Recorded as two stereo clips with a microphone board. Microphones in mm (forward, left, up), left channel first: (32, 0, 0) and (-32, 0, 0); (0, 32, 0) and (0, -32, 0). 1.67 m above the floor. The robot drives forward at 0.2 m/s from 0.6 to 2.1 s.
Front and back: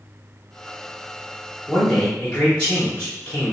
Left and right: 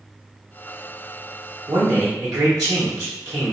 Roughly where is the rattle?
No rattle in this recording.